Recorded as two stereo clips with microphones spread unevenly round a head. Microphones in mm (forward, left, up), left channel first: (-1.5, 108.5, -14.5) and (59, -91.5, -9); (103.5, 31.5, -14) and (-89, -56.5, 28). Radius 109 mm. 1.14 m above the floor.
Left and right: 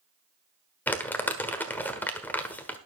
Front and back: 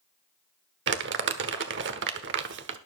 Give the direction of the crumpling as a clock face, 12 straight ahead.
6 o'clock.